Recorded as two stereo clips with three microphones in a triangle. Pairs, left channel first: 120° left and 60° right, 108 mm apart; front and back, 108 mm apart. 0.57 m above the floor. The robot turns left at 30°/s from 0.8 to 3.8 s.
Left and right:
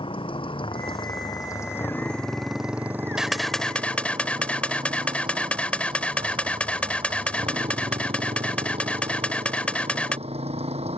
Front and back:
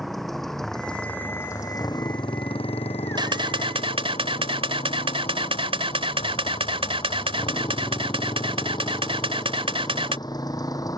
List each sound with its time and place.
0.0 s a motorcycle: 90° left; by 11.0 s 55° right
3.2 s a camera shutter: 145° right; by 10.2 s 165° right